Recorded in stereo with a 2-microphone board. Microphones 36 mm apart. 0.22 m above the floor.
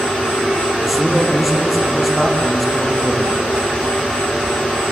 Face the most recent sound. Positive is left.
turn(degrees=0)  # may be behind; listen again after turning